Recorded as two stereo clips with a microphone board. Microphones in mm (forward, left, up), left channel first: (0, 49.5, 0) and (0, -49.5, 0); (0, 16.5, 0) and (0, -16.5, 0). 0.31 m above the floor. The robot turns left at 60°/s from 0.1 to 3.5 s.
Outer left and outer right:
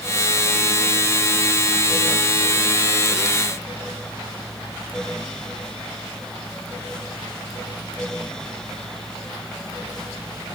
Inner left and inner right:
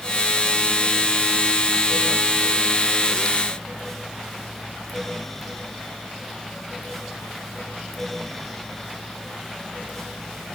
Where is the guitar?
No guitar in this recording.